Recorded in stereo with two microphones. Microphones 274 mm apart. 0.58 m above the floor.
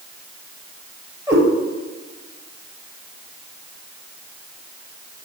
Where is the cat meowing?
10° right (ahead or behind), 1.3 m.